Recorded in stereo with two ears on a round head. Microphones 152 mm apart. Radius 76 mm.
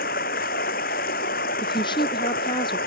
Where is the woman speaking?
30° left (ahead or behind).